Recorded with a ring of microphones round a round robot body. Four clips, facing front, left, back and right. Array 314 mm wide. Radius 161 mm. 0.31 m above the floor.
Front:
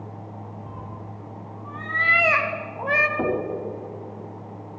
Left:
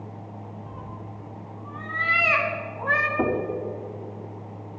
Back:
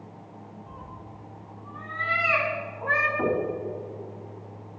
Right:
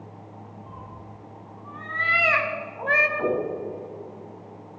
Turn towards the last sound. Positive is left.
turn(degrees=50)